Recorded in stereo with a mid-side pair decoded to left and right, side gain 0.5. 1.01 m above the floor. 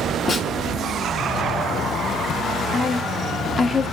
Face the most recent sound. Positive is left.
turn(degrees=35)